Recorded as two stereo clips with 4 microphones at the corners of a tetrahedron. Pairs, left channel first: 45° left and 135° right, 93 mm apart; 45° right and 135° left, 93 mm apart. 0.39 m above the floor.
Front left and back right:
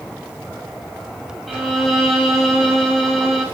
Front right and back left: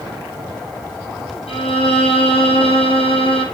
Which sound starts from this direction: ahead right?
A violin, at 1.5 s.